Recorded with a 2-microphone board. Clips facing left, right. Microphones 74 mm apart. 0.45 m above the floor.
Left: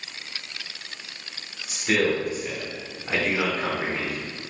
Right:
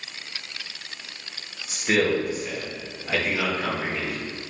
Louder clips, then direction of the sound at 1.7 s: Right 1 dB; 15° right (ahead or behind).